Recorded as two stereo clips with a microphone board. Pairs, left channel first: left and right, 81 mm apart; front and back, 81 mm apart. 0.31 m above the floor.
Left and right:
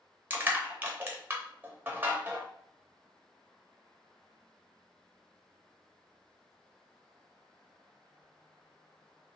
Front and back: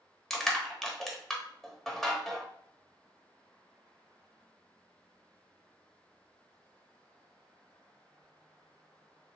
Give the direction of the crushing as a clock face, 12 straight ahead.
3 o'clock.